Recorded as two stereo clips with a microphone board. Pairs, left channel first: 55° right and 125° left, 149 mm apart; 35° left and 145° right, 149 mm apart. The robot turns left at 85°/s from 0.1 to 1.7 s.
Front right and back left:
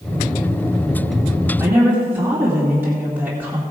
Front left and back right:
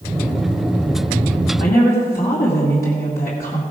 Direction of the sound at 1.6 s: 55° left.